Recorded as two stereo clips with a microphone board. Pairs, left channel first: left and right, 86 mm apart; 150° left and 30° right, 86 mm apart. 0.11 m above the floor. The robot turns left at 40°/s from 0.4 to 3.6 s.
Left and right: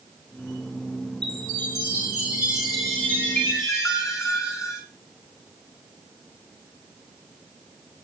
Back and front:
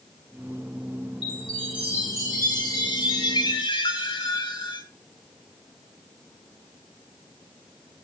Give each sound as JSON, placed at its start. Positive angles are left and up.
{"t": 1.2, "sound": "a chime", "azimuth_deg": -120, "distance_m": 8.5}